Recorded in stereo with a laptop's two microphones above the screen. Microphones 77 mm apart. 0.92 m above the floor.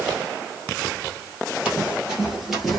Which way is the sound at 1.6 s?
15° right (ahead or behind).